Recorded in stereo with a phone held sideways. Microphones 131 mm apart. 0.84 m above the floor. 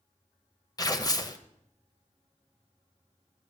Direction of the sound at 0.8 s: 30° left (ahead or behind).